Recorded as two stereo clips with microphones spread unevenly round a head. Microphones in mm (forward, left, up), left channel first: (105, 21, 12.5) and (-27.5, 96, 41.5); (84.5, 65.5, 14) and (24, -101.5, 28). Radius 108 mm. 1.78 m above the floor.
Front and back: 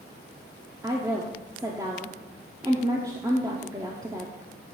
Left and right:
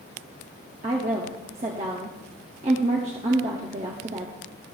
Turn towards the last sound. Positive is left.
turn(degrees=-150)